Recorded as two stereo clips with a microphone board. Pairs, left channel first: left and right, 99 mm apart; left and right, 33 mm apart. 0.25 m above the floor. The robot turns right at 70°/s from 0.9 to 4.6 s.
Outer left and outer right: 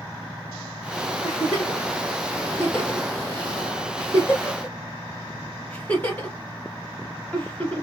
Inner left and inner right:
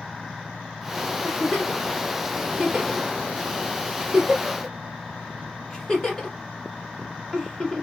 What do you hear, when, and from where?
1.2 s a giggle: 35° left (ahead or behind), 1.4 m; by 7.8 s 15° left (ahead or behind), 1.4 m